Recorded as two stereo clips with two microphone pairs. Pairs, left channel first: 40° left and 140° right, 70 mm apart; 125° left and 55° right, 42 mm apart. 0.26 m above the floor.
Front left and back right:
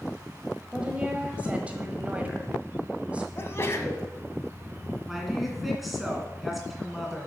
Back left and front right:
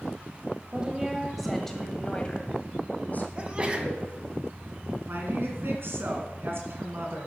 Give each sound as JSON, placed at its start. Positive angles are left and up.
{"t": 0.7, "sound": "a woman speaking", "azimuth_deg": -80, "distance_m": 1.3}
{"t": 3.4, "sound": "a sneeze", "azimuth_deg": 0, "distance_m": 1.9}
{"t": 5.1, "sound": "a woman speaking", "azimuth_deg": -50, "distance_m": 2.0}